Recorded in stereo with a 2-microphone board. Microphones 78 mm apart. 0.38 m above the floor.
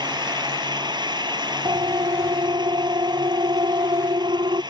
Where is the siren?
65° right (ahead or behind); by 4.6 s 75° right (ahead or behind).